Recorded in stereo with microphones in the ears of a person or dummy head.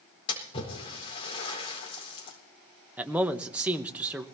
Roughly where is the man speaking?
Centre.